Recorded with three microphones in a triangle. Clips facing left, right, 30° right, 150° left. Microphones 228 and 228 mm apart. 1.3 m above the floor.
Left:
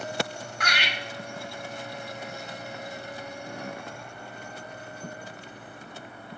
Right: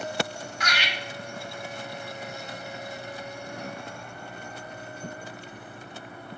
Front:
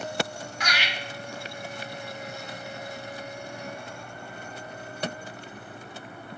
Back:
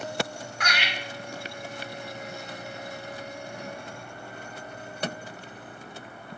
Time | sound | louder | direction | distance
0.6 | laughter | even, back 1 dB | 120° left | 1.3 m